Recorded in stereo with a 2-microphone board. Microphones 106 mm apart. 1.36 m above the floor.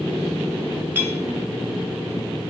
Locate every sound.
0.9 s a clink: 20° right (ahead or behind), 0.9 m